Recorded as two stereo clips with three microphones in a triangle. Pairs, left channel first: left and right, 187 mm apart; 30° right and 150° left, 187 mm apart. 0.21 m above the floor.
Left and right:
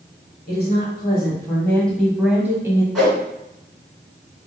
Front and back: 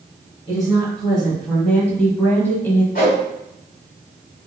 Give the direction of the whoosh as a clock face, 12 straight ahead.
12 o'clock.